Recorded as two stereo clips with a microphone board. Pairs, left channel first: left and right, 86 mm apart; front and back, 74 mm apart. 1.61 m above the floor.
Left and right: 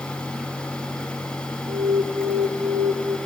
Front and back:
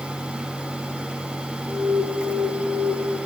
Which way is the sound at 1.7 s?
90° right.